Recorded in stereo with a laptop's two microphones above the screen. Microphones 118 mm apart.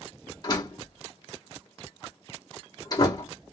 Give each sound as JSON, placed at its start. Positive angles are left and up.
{"t": 0.4, "sound": "a door slam", "side_deg": 35, "distance_m": 1.2}